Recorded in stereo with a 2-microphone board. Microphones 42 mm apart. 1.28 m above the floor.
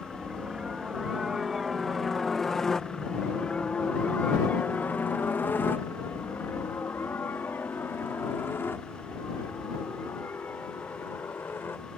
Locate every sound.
0.0 s a helicopter: 20° right (ahead or behind); by 12.0 s 60° left (ahead or behind)